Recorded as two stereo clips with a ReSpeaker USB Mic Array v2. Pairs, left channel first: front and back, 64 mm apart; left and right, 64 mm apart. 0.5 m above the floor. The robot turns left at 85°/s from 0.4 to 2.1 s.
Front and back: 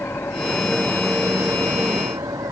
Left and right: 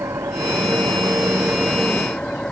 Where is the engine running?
50° right; by 2.5 s 165° left.